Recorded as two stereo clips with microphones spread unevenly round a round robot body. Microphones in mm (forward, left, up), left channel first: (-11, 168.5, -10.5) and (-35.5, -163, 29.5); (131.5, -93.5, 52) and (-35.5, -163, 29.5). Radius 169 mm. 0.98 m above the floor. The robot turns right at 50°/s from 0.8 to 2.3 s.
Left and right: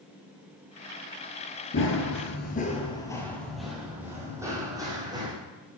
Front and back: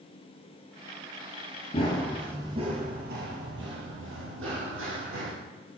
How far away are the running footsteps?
About 1.1 m.